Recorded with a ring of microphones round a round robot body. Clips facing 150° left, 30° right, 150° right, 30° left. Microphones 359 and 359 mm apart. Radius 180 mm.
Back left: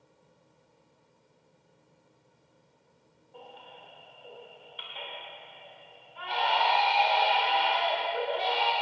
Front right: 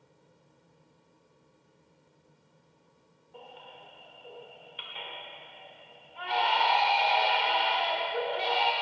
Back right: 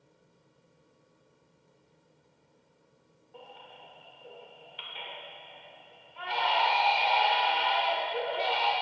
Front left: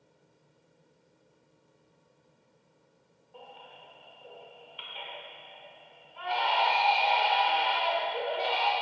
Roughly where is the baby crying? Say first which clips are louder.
Even, even; right.